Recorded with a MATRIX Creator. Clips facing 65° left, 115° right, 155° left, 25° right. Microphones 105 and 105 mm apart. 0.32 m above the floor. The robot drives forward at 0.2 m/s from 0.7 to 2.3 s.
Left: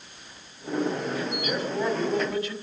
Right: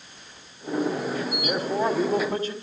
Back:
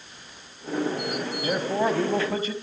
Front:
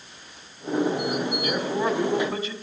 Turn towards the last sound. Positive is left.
turn(degrees=-160)